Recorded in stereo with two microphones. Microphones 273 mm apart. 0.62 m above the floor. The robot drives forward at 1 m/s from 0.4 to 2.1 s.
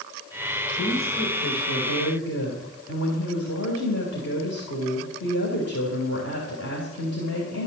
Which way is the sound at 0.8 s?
70° left (ahead or behind).